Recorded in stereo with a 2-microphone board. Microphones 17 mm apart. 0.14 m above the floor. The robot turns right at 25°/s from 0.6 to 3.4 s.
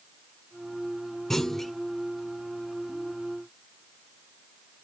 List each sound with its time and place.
1.3 s a clunk: 20° left (ahead or behind), 1.9 m; by 1.7 s 15° left (ahead or behind), 1.9 m